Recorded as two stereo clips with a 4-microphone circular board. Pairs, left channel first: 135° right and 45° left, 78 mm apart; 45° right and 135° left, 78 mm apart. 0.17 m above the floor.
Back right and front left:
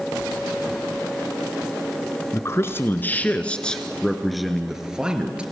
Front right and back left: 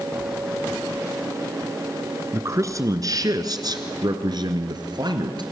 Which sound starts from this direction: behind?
A man speaking, at 2.3 s.